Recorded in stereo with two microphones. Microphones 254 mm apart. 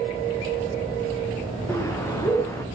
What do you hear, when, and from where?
1.7 s a bird: 10° left (ahead or behind), 3 m